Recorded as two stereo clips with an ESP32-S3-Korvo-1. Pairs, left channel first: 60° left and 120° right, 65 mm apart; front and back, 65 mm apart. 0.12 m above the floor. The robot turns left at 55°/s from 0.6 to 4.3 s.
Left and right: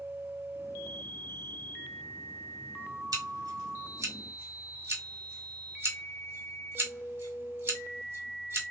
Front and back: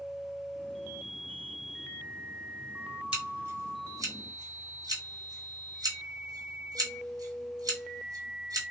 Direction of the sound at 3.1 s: 105° right.